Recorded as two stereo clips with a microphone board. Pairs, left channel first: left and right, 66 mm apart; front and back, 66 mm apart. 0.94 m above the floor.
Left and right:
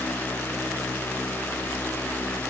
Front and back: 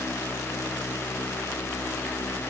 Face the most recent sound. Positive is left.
No sound to turn to.